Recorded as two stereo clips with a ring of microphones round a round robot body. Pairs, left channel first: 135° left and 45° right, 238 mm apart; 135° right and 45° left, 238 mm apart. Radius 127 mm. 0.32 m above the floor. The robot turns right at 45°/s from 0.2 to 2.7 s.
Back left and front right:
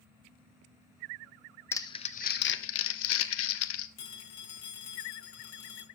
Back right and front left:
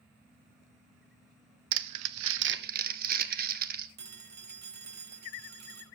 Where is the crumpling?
55° left, 0.9 m; by 3.9 s 100° left, 0.9 m.